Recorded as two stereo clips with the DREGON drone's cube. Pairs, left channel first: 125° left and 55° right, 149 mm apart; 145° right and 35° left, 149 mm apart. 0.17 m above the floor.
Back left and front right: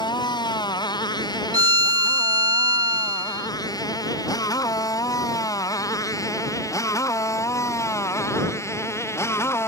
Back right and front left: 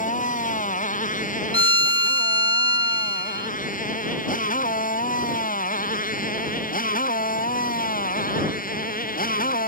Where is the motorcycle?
175° right; by 9.7 s 165° right.